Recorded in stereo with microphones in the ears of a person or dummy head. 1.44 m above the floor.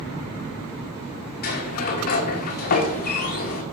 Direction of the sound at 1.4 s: 45° left (ahead or behind).